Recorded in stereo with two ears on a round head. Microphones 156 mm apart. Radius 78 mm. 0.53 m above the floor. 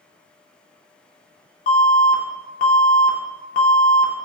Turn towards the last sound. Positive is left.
turn(degrees=45)  # may be behind; listen again after turning